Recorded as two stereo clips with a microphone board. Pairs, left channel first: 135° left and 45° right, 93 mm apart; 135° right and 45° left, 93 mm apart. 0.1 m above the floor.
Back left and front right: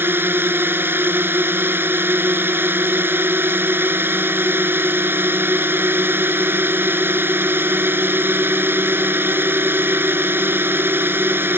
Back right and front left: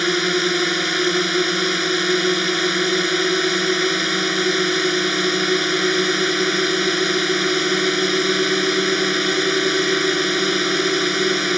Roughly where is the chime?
I don't hear a chime.